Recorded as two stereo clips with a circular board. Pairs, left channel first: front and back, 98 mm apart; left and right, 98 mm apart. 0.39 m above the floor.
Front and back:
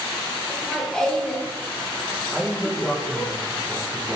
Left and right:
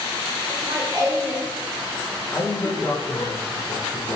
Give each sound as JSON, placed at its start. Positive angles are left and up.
{"t": 0.5, "sound": "laughter", "azimuth_deg": -85, "distance_m": 1.1}
{"t": 2.3, "sound": "a man speaking", "azimuth_deg": 100, "distance_m": 0.9}